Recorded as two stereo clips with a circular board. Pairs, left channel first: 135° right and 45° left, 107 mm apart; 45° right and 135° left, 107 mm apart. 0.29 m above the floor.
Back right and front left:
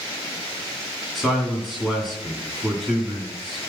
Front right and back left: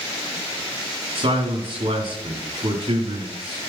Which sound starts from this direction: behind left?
A man speaking, at 1.1 s.